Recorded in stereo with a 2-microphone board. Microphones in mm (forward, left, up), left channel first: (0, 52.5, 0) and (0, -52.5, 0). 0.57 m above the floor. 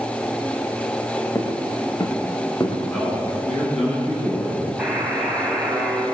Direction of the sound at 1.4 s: 35° left (ahead or behind).